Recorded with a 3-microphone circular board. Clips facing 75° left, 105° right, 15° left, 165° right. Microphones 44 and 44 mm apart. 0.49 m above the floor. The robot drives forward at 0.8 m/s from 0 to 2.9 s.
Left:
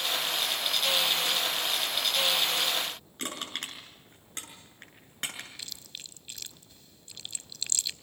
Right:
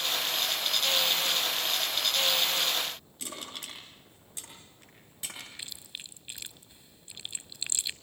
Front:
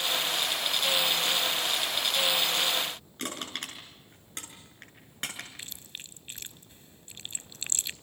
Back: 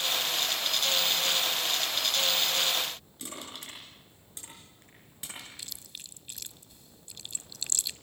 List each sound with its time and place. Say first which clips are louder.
3.2 s crushing: left 7 dB, front 9 dB; 45° left, 6.5 m
5.6 s chewing: right 1 dB, front 2 dB; 35° right, 0.6 m